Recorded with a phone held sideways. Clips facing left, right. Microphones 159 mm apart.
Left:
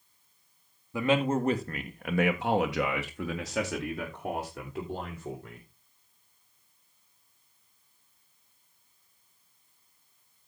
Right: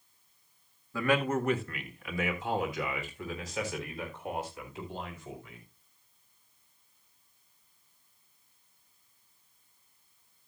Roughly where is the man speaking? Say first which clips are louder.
Left 2 dB; centre.